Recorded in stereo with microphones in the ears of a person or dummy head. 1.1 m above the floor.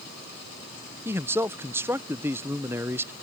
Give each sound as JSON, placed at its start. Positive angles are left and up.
{"t": 1.1, "sound": "a man speaking", "side_deg": -15}